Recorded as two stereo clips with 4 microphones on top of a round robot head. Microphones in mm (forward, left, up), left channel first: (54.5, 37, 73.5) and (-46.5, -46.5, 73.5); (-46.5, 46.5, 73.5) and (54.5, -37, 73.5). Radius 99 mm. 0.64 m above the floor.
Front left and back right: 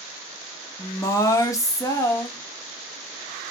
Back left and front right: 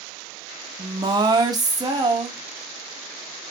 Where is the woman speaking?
5° right, 0.7 m.